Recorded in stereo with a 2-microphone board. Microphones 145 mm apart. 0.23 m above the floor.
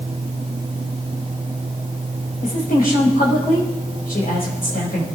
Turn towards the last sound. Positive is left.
turn(degrees=75)  # may be behind; listen again after turning